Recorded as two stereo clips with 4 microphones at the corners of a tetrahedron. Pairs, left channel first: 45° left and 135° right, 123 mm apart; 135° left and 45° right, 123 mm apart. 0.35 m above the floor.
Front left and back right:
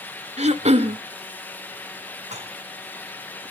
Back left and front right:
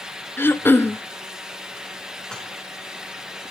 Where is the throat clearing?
155° right, 0.6 m.